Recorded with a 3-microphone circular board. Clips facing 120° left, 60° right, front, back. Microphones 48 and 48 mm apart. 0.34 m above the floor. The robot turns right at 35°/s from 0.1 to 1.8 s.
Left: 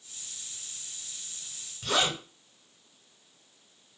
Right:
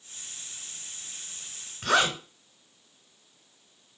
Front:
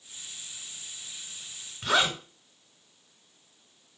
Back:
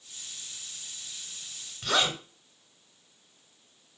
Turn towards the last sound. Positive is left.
turn(degrees=-70)